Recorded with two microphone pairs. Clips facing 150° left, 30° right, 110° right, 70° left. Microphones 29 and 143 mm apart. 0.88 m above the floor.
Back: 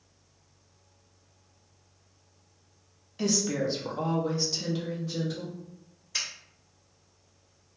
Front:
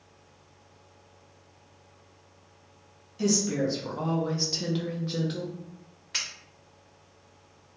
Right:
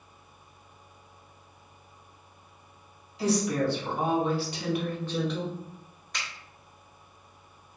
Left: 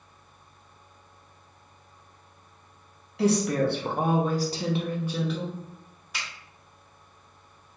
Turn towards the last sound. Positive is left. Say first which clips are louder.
# front 1 dB, even
turn(degrees=-15)